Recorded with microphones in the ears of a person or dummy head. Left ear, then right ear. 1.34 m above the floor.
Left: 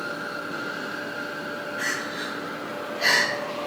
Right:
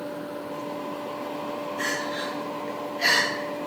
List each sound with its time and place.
1.8 s crying: 5° left (ahead or behind), 2.5 m